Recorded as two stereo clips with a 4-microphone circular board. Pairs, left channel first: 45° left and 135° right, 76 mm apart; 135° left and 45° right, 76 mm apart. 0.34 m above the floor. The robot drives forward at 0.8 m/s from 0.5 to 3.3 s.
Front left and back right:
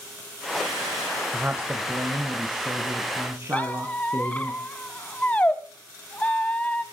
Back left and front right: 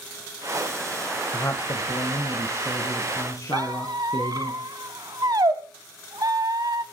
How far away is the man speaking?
About 1.1 m.